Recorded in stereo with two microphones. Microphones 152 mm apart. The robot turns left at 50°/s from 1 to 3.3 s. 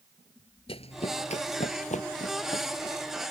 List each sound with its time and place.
0.7 s running footsteps: 40° left (ahead or behind); by 3.2 s 15° left (ahead or behind)